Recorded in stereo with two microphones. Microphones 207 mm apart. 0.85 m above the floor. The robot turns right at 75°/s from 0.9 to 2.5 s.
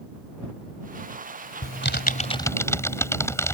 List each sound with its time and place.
1.6 s typing on a keyboard: 100° left; by 3.5 s 165° left